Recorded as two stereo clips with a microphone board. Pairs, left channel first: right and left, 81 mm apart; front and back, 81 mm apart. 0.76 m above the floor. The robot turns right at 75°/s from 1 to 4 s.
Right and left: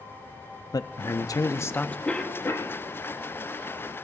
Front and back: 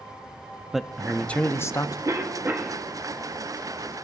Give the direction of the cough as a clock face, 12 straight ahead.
5 o'clock.